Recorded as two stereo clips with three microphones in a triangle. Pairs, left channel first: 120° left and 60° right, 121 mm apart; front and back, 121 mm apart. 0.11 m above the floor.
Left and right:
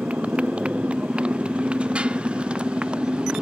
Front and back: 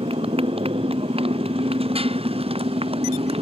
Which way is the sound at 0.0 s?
140° right.